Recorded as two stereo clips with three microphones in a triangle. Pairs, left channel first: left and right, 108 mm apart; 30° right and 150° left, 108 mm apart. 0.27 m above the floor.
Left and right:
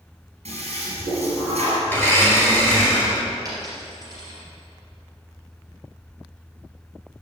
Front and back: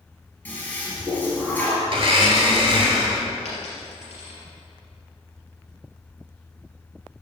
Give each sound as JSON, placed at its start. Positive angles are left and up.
{"t": 0.5, "sound": "a toilet flushing", "azimuth_deg": -105, "distance_m": 3.0}
{"t": 1.9, "sound": "a blender", "azimuth_deg": 155, "distance_m": 2.0}
{"t": 3.5, "sound": "a dropped coin", "azimuth_deg": -35, "distance_m": 3.5}